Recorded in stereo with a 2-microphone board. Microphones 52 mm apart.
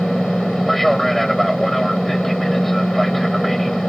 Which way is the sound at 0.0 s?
5° left (ahead or behind).